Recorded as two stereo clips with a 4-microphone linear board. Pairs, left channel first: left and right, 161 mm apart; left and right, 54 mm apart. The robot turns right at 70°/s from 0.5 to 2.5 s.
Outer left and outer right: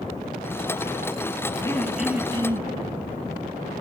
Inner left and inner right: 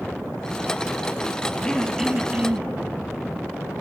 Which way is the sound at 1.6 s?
155° left.